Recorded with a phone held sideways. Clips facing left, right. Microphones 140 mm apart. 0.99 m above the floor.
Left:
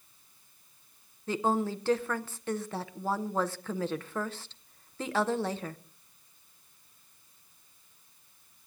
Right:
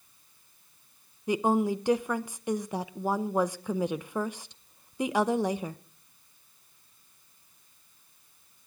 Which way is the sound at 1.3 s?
15° right (ahead or behind).